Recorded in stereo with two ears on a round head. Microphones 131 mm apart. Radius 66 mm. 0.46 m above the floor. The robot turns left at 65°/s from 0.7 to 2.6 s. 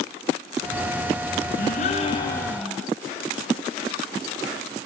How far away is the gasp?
About 2.5 m.